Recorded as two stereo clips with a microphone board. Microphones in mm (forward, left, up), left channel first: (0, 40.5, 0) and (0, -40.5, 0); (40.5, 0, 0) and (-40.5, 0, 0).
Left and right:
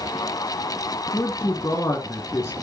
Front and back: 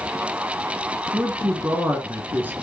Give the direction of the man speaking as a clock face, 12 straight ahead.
8 o'clock.